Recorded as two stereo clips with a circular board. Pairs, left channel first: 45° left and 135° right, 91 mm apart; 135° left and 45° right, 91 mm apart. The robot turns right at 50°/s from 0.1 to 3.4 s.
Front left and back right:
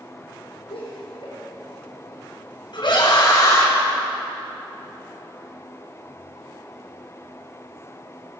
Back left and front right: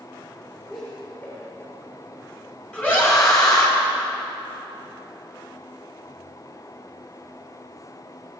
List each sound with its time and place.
0.7 s laughter: 55° left, 4.5 m; by 1.4 s 85° left, 4.5 m
2.7 s a scream: 50° left, 3 m; by 3.7 s 85° left, 3 m